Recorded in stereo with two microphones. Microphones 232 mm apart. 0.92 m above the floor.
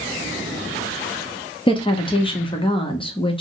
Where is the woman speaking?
20° left (ahead or behind), 0.8 m.